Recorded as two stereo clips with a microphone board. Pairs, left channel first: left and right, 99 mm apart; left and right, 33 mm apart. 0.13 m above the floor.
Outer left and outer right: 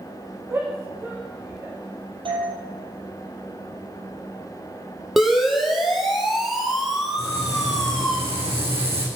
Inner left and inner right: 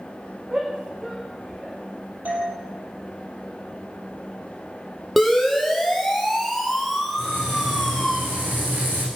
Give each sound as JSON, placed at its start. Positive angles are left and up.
{"t": 0.5, "sound": "a shout", "side_deg": -25, "distance_m": 8.5}
{"t": 2.2, "sound": "a doorbell", "side_deg": -60, "distance_m": 5.5}
{"t": 5.2, "sound": "a siren", "side_deg": -5, "distance_m": 5.5}
{"t": 7.2, "sound": "frying", "side_deg": -75, "distance_m": 8.0}